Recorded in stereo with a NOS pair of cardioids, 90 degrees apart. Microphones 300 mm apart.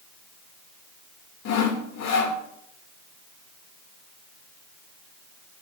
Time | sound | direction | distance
1.4 | sawing | 65° left | 1.8 m